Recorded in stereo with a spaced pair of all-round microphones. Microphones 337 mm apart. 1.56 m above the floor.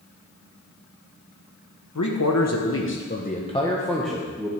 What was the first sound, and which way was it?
A man speaking, 65° left (ahead or behind).